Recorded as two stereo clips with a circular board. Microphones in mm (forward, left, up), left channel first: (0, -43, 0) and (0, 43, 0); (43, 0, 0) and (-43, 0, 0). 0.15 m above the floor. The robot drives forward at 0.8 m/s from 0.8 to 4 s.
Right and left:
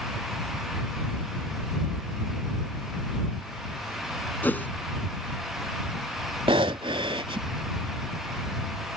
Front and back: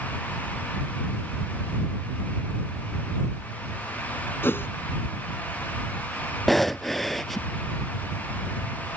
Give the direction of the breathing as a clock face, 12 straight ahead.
9 o'clock.